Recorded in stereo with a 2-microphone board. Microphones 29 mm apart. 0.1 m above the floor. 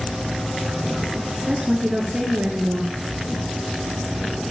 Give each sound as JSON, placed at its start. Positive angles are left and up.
{"t": 1.5, "sound": "a woman speaking", "side_deg": -25, "distance_m": 1.6}